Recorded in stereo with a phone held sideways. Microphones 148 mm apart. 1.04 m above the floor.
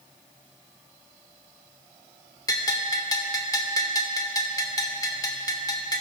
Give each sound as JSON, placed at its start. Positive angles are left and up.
{"t": 2.5, "sound": "a bell", "side_deg": 25, "distance_m": 0.8}